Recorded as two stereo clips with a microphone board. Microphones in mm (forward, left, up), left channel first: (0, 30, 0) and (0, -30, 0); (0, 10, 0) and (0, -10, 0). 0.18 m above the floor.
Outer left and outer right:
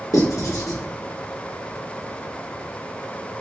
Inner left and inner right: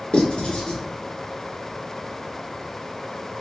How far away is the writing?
About 1.3 m.